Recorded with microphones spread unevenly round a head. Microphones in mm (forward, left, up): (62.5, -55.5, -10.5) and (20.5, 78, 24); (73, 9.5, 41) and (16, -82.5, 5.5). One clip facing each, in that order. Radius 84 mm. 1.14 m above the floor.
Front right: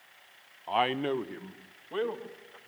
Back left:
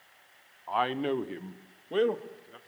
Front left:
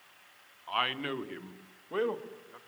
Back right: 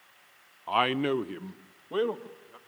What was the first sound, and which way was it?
A man speaking, 130° right.